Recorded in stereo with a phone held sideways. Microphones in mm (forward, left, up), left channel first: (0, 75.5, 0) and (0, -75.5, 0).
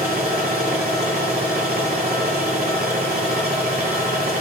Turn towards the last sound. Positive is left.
turn(degrees=-75)  # may be behind; listen again after turning